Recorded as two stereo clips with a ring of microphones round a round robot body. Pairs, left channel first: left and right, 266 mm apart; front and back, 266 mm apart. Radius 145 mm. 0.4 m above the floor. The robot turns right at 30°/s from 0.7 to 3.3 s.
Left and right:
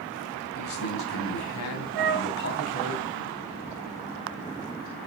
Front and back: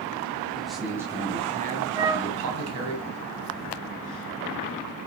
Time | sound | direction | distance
0.6 | a man speaking | 90° left | 2.5 m
1.9 | a flute | 105° right | 0.8 m